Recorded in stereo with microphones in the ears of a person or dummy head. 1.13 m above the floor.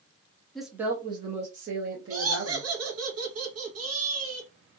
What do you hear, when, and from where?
0.6 s a woman speaking: centre (ahead or behind), 0.6 m; by 2.7 s 60° right (ahead or behind), 1.2 m
2.1 s laughter: 75° right (ahead or behind), 1.1 m